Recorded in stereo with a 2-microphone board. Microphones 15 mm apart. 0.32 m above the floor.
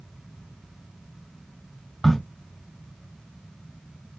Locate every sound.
2.0 s a crack: 15° left (ahead or behind), 2 m